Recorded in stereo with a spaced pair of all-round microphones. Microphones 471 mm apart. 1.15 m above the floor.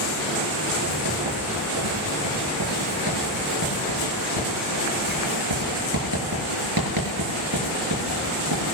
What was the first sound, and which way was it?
Writing, 40° right (ahead or behind).